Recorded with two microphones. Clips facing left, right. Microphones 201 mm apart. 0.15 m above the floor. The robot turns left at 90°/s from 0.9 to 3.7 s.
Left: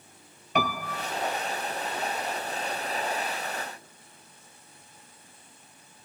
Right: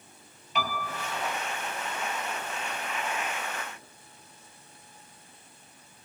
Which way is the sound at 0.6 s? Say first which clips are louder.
Left 4 dB; 60° left (ahead or behind).